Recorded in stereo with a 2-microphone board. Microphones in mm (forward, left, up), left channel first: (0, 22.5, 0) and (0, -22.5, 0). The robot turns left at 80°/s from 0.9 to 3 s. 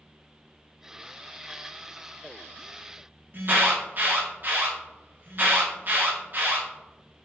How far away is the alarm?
About 2 m.